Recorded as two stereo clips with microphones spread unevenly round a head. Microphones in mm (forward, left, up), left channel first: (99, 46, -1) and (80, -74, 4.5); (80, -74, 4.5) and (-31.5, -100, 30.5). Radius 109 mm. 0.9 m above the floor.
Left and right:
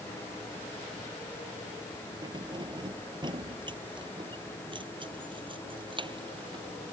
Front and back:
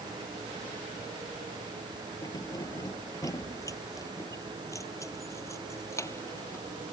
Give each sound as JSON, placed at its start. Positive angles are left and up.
{"t": 2.2, "sound": "keys jangling", "azimuth_deg": -45}